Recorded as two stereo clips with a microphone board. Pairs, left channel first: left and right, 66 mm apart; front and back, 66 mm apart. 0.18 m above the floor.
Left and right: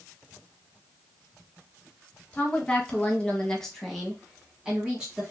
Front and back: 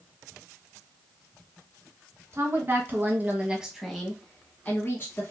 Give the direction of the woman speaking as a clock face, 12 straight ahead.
7 o'clock.